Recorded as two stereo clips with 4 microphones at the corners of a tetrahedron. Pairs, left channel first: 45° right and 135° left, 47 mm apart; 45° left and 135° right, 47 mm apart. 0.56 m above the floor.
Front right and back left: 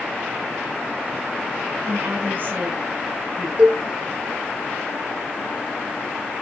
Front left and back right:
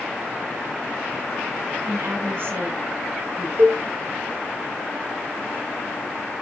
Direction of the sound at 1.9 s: 175° right.